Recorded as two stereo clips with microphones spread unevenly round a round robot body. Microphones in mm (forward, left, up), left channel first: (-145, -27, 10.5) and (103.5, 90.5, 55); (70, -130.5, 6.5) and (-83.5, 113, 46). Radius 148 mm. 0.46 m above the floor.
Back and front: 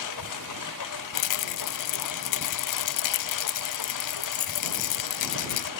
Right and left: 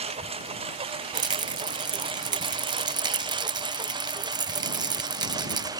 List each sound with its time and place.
0.0 s a lawn mower: 170° right; by 5.8 s 160° right
1.1 s a rattle: 160° right